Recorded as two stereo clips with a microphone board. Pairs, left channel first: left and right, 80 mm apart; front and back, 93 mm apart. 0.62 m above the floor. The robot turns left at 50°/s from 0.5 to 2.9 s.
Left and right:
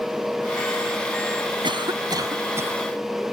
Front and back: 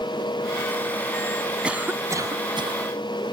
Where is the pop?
No pop in this recording.